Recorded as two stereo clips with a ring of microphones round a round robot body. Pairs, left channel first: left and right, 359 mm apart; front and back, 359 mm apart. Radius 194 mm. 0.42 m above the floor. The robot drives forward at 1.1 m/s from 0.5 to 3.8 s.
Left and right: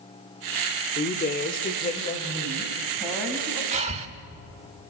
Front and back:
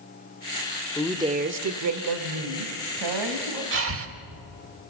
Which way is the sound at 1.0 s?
70° left.